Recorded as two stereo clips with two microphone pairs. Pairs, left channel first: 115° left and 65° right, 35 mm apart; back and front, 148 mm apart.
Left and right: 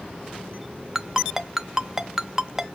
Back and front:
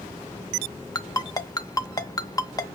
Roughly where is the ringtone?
Behind right.